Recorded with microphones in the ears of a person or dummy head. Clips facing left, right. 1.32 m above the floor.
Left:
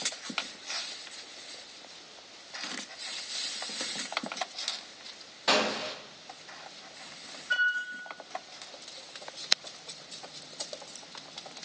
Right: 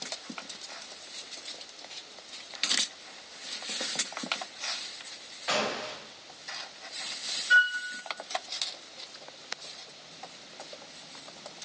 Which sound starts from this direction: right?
A flute, at 7.5 s.